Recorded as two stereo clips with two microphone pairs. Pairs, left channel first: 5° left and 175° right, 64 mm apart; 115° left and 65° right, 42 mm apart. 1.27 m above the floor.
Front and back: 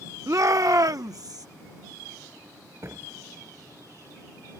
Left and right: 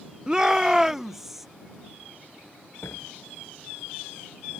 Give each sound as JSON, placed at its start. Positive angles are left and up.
{"t": 0.3, "sound": "a shout", "azimuth_deg": -135}
{"t": 2.8, "sound": "a door slam", "azimuth_deg": 135}